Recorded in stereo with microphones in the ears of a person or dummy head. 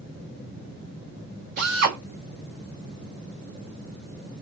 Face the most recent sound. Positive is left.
turn(degrees=-60)  # may be behind; listen again after turning